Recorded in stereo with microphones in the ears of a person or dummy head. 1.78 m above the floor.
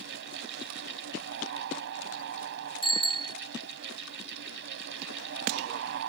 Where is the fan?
65° right (ahead or behind).